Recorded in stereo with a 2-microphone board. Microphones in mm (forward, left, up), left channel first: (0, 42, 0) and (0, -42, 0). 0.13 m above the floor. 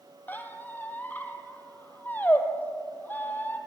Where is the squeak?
20° left (ahead or behind), 1.0 m.